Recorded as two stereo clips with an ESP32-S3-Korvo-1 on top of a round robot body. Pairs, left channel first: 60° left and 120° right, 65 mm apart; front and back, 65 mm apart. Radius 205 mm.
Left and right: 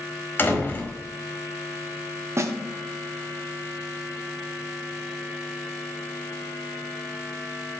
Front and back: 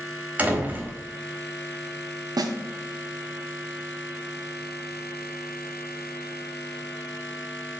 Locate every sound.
0.4 s a door slam: 115° left, 1.6 m
2.4 s a snare drum: 165° right, 0.8 m